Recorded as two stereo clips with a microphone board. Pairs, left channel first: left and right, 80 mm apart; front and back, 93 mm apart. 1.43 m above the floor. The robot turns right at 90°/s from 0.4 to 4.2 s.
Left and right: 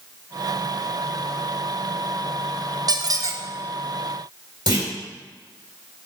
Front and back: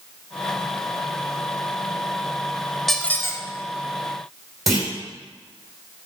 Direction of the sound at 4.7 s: 90° right.